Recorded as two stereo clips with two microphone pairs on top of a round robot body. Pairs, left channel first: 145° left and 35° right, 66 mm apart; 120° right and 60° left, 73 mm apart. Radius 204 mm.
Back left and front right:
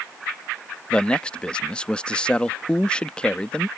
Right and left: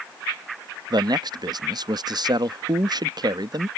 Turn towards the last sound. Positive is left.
turn(degrees=70)